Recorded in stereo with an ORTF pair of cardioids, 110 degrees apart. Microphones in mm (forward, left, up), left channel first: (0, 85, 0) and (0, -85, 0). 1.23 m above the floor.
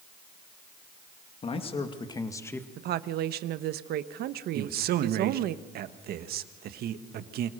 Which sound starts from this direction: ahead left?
A man speaking, at 1.4 s.